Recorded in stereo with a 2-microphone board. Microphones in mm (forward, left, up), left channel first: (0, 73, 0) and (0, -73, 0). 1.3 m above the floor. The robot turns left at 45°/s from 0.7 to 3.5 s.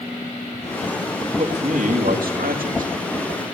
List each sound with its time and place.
1.3 s a man speaking: 40° right, 2 m; by 2.9 s 115° right, 2 m